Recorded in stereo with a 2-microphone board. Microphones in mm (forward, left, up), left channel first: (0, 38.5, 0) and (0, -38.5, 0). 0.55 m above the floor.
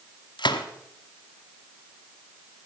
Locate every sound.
0.4 s a gunshot: 75° left (ahead or behind), 1.1 m